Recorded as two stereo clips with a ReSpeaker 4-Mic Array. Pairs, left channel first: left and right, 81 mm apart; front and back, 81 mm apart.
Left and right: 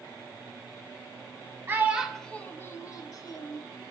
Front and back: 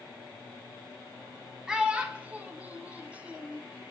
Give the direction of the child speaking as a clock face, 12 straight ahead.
4 o'clock.